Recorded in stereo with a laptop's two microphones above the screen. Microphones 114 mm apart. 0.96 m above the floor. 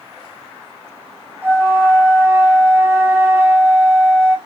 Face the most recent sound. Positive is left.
turn(degrees=-20)  # may be behind; listen again after turning